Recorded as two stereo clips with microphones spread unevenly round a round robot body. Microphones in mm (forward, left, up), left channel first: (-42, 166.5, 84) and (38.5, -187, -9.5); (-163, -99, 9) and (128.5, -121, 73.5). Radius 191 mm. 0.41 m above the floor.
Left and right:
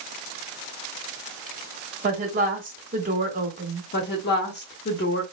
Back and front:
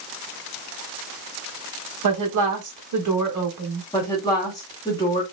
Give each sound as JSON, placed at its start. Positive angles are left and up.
{"t": 2.0, "sound": "a woman speaking", "azimuth_deg": -20, "distance_m": 1.6}
{"t": 3.9, "sound": "a woman speaking", "azimuth_deg": 160, "distance_m": 1.3}